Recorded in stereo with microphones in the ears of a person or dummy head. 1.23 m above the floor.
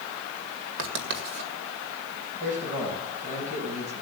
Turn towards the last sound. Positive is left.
turn(degrees=-40)  # may be behind; listen again after turning